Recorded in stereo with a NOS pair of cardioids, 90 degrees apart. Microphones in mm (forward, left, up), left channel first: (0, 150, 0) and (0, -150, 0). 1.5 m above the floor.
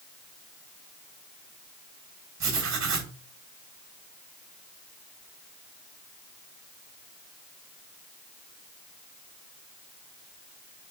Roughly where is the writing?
Ahead right.